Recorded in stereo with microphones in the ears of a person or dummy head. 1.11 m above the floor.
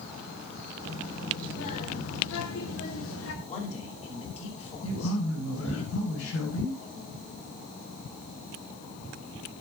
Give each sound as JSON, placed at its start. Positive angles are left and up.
{"t": 0.8, "sound": "a child speaking", "side_deg": 85, "distance_m": 3.5}
{"t": 3.5, "sound": "a man speaking", "side_deg": 35, "distance_m": 4.5}
{"t": 4.8, "sound": "a man speaking", "side_deg": 85, "distance_m": 5.0}